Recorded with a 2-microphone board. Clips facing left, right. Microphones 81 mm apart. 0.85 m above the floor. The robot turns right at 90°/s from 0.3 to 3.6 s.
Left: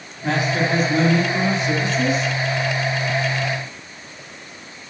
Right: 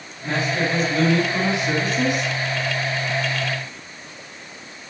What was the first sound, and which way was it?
A man speaking, 85° left.